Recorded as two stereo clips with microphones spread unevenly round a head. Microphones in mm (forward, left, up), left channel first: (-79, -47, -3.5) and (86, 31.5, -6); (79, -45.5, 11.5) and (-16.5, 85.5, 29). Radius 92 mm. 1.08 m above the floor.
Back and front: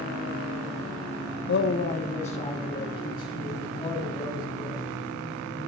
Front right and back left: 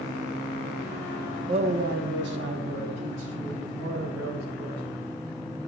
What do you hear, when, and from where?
1.5 s a man speaking: 165° right, 0.6 m; by 4.8 s 135° left, 5 m